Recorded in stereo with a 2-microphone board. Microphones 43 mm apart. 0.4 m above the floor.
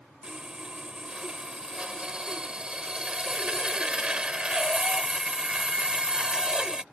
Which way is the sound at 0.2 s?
20° right (ahead or behind).